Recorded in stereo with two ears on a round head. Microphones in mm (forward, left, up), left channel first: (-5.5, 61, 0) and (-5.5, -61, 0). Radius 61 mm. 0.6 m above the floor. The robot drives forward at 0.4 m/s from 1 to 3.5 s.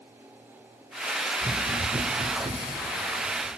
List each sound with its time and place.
1.4 s running footsteps: 15° right (ahead or behind), 0.8 m; by 3.5 s 20° right (ahead or behind), 3 m